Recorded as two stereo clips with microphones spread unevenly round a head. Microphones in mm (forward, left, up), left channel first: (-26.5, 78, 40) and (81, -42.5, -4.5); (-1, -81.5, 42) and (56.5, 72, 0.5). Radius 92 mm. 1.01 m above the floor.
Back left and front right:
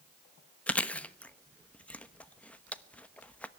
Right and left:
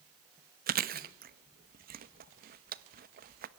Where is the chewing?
45° left, 1.0 m.